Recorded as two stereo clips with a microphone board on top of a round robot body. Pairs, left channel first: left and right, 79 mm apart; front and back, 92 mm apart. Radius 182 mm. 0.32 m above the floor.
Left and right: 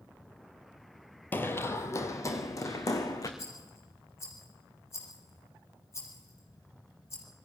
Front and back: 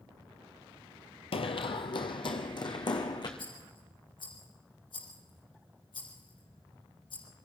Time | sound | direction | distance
1.3 | running footsteps | 20° left | 0.8 m
3.4 | a rattle | 35° left | 5 m